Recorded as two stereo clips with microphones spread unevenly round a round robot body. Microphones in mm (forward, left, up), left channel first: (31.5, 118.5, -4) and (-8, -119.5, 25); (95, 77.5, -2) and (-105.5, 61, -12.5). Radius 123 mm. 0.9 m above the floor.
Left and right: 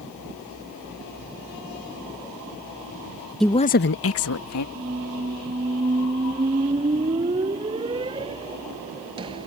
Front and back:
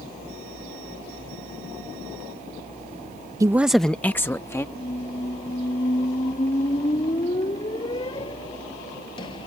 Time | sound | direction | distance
3.4 | a woman speaking | 155° left | ?
4.8 | a squeak | 50° right | ?